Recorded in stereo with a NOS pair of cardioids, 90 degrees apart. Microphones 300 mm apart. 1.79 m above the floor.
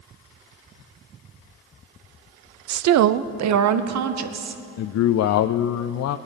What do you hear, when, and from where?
2.7 s a woman speaking: 70° right, 0.6 m; by 4.6 s 65° right, 1.8 m
4.8 s a man speaking: 60° left, 0.5 m